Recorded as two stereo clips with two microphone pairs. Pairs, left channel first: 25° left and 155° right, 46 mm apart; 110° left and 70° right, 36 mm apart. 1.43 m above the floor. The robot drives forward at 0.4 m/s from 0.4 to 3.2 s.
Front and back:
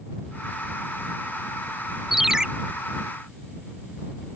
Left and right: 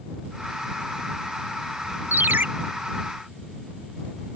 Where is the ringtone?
70° right; by 2.5 s 80° right.